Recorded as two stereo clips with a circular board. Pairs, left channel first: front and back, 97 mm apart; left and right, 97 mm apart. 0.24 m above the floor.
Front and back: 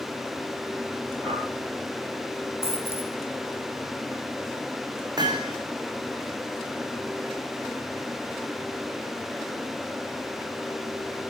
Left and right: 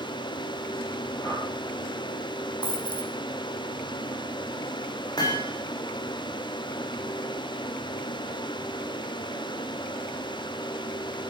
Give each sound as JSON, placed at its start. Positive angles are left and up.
{"t": 1.2, "sound": "a whoosh", "azimuth_deg": 150, "distance_m": 4.0}
{"t": 2.6, "sound": "a dropped coin", "azimuth_deg": 15, "distance_m": 5.0}
{"t": 5.2, "sound": "hammering", "azimuth_deg": 135, "distance_m": 4.5}